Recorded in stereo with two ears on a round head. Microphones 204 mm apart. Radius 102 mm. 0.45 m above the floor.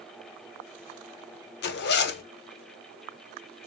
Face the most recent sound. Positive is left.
turn(degrees=50)  # may be behind; listen again after turning